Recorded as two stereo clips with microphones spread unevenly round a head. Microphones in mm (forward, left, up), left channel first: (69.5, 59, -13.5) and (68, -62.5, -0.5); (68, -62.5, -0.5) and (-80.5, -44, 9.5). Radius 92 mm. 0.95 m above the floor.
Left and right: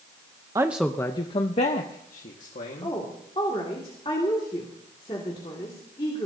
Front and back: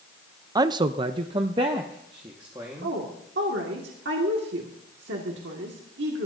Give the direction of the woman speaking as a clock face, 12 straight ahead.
7 o'clock.